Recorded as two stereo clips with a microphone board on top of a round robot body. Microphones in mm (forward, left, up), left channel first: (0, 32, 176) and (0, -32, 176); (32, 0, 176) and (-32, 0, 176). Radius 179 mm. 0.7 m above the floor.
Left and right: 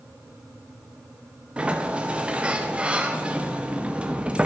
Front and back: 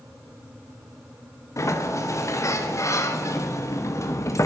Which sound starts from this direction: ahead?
A sliding door, at 1.6 s.